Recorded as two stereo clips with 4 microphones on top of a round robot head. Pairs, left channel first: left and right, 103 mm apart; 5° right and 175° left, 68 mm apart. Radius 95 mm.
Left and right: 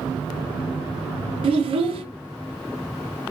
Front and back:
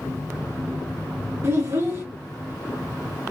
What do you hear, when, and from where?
1.4 s a child speaking: 115° right, 0.6 m